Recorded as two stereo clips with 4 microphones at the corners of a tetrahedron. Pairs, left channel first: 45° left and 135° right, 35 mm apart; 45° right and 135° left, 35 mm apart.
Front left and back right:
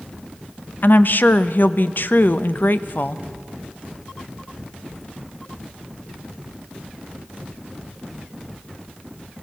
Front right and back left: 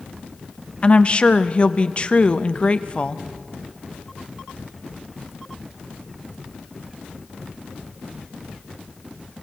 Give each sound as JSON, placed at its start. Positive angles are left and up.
{"t": 0.8, "sound": "a woman speaking", "azimuth_deg": 15, "distance_m": 0.7}